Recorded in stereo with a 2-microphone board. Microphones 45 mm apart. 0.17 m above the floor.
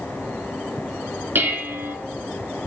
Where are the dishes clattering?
55° right (ahead or behind), 1.4 m.